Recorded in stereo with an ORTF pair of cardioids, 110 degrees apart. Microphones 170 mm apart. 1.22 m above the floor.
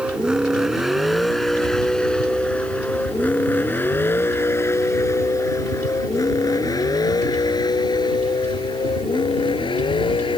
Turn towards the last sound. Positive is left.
turn(degrees=30)